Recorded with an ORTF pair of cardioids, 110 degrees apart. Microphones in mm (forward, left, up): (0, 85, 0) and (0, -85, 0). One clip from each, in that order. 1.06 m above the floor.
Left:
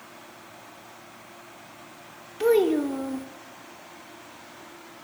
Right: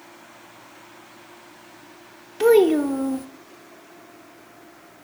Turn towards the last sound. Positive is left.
turn(degrees=-30)